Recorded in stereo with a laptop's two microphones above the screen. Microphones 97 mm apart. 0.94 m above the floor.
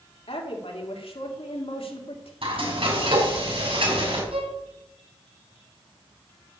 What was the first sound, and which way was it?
A woman speaking, 75° left (ahead or behind).